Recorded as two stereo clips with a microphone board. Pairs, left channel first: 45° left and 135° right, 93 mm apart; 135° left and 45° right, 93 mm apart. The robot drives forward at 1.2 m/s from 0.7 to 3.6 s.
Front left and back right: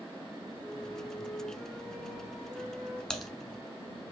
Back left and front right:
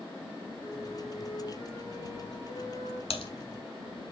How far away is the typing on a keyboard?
About 0.9 m.